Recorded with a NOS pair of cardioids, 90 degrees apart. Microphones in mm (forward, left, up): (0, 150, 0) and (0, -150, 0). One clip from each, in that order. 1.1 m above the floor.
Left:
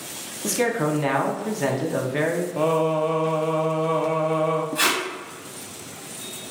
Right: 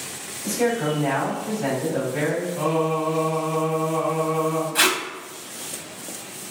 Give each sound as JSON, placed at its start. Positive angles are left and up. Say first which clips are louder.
{"t": 0.4, "sound": "a man speaking", "louder": "even", "azimuth_deg": 65, "distance_m": 0.8}
{"t": 2.6, "sound": "singing", "louder": "left 3 dB", "azimuth_deg": 65, "distance_m": 0.7}
{"t": 4.8, "sound": "tape being pulled", "louder": "right 3 dB", "azimuth_deg": -40, "distance_m": 0.6}